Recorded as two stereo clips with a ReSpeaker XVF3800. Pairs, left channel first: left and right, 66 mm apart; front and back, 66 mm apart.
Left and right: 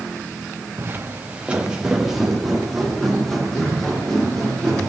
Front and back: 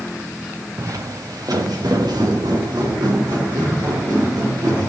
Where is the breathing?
I don't hear breathing.